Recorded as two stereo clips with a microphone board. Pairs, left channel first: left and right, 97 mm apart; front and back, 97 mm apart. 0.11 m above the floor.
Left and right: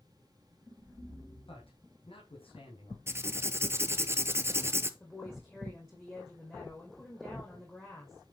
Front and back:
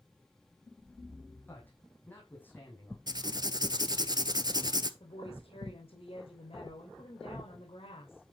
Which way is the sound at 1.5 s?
70° left.